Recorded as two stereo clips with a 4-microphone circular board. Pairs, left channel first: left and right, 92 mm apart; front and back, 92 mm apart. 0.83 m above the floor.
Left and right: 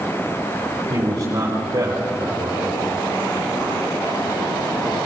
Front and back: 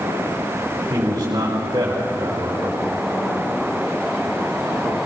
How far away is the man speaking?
About 4.5 m.